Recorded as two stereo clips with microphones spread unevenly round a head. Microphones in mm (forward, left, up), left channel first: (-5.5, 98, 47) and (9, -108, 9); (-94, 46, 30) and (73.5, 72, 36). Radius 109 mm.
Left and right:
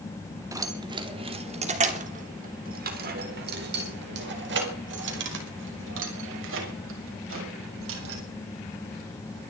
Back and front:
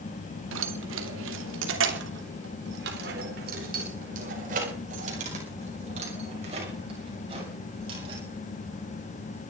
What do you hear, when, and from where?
0.5 s keys jangling: 10° right, 2.5 m; by 8.2 s 60° right, 7.5 m